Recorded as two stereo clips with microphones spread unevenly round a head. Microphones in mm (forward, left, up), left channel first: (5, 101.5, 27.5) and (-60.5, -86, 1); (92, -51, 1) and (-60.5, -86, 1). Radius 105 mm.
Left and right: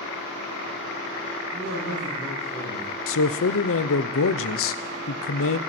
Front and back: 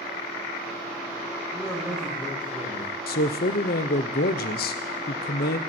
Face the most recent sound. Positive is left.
turn(degrees=45)